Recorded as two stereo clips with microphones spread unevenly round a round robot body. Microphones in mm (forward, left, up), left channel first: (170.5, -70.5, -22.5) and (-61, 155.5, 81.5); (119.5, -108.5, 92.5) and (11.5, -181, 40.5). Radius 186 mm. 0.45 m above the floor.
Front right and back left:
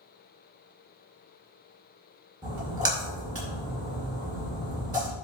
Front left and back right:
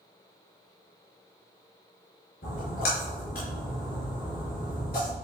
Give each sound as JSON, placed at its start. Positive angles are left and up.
{"t": 2.4, "sound": "a splash", "azimuth_deg": 55, "distance_m": 5.0}